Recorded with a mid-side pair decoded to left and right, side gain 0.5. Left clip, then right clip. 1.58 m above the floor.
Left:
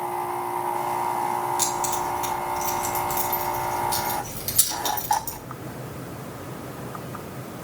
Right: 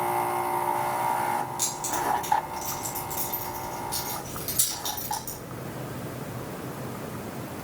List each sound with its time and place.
1.6 s keys jangling: 65° left, 3 m